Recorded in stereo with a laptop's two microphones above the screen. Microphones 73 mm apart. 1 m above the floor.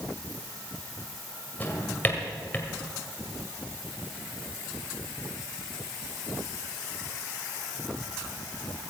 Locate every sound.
1.6 s a drawer: 25° left (ahead or behind), 1.8 m